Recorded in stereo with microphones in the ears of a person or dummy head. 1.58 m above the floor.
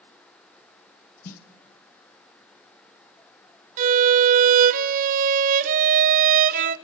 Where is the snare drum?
50° left (ahead or behind), 1.2 m.